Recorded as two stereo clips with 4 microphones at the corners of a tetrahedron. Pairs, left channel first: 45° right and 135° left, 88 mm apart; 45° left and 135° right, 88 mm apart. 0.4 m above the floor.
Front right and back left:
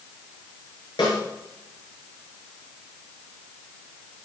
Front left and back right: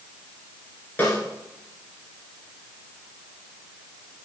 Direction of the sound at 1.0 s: 25° right.